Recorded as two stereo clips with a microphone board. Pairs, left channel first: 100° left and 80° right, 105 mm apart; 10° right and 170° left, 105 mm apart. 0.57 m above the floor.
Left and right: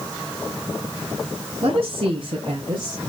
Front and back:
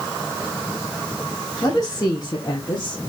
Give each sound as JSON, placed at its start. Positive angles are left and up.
{"t": 1.6, "sound": "a woman speaking", "azimuth_deg": -70, "distance_m": 2.5}